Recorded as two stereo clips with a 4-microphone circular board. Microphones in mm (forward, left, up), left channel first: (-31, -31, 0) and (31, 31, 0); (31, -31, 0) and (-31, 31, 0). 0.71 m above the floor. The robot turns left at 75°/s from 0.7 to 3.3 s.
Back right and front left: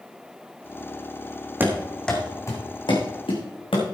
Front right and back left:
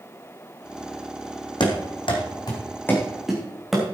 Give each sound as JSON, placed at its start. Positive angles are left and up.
{"t": 1.6, "sound": "running footsteps", "azimuth_deg": -20, "distance_m": 2.0}